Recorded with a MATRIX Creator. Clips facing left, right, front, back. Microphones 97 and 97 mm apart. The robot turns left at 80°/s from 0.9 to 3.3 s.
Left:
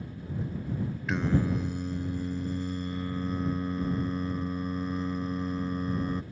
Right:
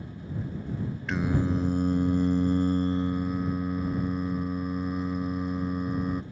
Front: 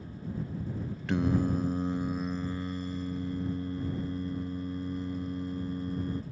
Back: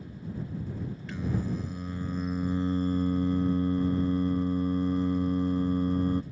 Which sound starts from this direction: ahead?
Singing, at 1.1 s.